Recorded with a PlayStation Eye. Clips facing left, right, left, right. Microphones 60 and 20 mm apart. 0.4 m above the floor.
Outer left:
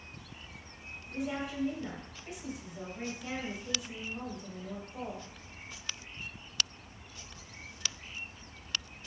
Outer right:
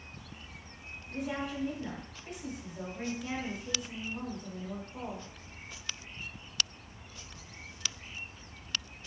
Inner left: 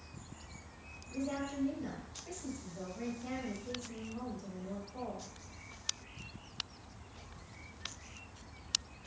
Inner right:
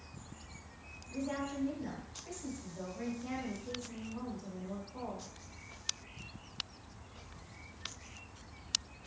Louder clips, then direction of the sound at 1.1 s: Even, even; 5° left (ahead or behind).